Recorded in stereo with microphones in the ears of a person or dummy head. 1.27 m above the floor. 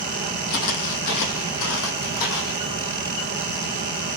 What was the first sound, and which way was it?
Footsteps, 65° left (ahead or behind).